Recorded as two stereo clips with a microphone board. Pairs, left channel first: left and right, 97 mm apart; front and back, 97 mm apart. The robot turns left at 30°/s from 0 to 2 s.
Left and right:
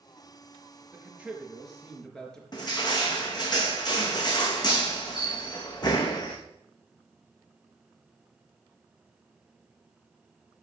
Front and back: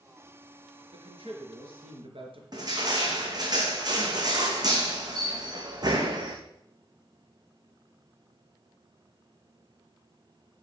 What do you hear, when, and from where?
0.9 s a man speaking: 155° right, 3.5 m; by 2.4 s 175° left, 3.5 m
2.5 s crushing: 135° left, 2.5 m